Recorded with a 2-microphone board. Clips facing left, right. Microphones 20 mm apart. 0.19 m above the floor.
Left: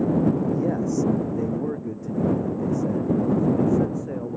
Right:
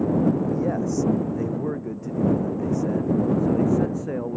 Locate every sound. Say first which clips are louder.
0.5 s a man speaking: even; 5° right (ahead or behind); by 4.4 s 20° right (ahead or behind)